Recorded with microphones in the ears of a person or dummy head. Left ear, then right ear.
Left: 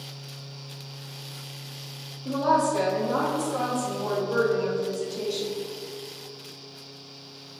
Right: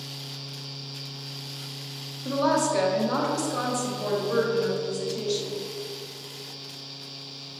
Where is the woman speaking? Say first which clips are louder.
Left 1 dB; 50° right (ahead or behind), 1.6 m; by 5.6 s 45° right (ahead or behind), 3.5 m.